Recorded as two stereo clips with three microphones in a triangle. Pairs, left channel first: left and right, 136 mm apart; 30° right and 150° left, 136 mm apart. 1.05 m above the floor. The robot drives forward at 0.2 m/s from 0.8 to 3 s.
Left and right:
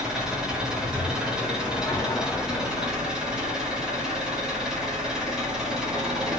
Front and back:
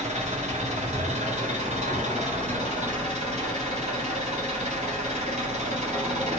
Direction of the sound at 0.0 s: 175° right.